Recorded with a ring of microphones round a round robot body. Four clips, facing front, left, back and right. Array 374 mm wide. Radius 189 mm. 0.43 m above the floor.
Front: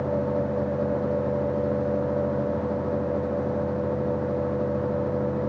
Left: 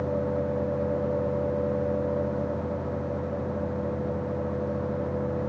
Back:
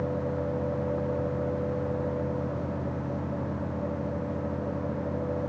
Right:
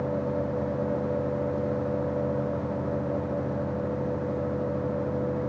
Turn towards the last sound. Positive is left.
No sound to turn to.